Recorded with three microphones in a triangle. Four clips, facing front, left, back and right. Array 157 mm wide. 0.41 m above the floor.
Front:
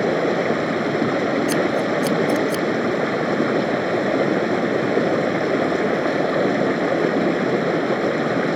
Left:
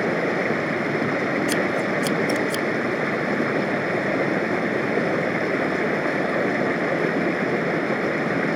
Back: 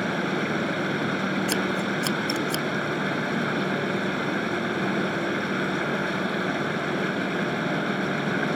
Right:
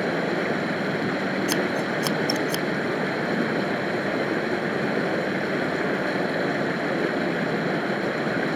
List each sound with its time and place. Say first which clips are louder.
0.0 s running water: left 2 dB, front 8 dB; 10° left
1.5 s scissors: left 2 dB, front 7 dB; 95° right